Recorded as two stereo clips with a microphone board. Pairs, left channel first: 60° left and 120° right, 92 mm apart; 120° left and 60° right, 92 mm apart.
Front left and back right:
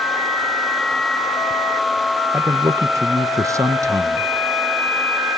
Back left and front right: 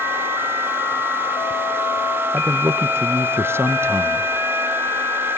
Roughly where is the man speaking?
Right.